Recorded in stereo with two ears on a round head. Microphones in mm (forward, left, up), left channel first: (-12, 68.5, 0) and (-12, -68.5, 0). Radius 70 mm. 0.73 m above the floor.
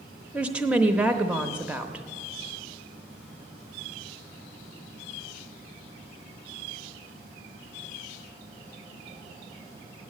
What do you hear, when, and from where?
0.3 s a woman speaking: 5° right (ahead or behind), 0.9 m